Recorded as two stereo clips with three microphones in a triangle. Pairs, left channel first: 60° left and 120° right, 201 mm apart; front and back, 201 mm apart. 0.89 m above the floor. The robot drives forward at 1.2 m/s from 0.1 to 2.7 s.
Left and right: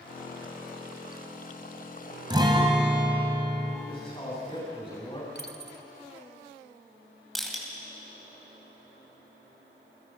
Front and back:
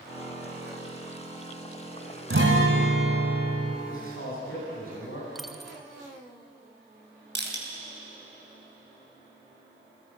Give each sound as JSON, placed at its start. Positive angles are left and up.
{"t": 2.3, "sound": "a guitar", "azimuth_deg": 170, "distance_m": 2.0}
{"t": 3.9, "sound": "a man speaking", "azimuth_deg": -5, "distance_m": 8.5}
{"t": 5.3, "sound": "a dropped coin", "azimuth_deg": 90, "distance_m": 1.1}
{"t": 7.3, "sound": "crushing", "azimuth_deg": 150, "distance_m": 3.5}